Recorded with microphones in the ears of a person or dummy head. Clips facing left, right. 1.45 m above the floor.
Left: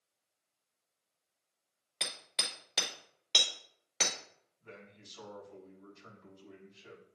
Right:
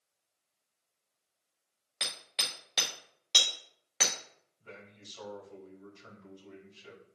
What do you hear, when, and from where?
2.0 s hammering: 5° right (ahead or behind), 1.7 m
4.6 s a man speaking: 40° right (ahead or behind), 3.5 m